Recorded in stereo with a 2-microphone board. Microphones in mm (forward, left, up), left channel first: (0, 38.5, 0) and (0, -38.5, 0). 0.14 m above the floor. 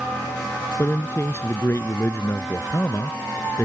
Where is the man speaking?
35° left (ahead or behind).